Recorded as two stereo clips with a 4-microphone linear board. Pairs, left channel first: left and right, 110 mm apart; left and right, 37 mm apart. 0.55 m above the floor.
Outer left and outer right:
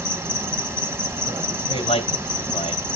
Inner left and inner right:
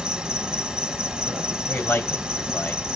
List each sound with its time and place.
0.0 s an insect: 25° right (ahead or behind), 0.9 m
1.7 s a man speaking: 75° left (ahead or behind), 3 m